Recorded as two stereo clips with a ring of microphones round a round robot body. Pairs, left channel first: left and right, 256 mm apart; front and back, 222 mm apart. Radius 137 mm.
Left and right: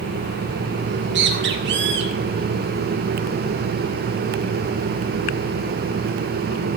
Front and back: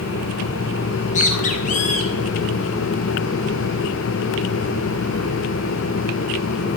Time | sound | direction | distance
0.8 | a bird | 55° right | 2.5 m